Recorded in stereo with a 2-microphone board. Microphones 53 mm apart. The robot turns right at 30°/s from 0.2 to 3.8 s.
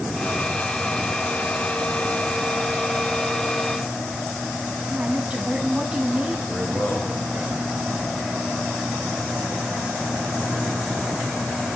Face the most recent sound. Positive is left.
turn(degrees=-35)  # may be behind; listen again after turning